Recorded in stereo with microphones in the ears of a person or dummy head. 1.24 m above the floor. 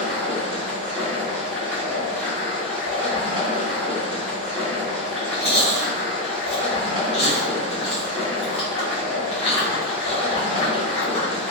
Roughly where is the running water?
Centre.